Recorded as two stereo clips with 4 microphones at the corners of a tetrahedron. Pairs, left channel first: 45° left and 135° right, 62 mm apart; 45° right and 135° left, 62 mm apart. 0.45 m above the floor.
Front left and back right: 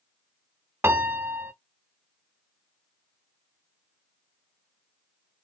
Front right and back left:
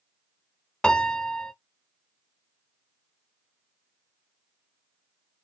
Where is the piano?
110° right, 0.6 m.